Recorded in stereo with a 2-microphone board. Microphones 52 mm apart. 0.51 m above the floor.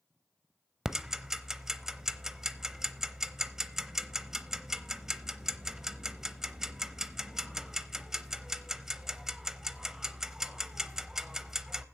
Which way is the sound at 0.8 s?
10° right (ahead or behind).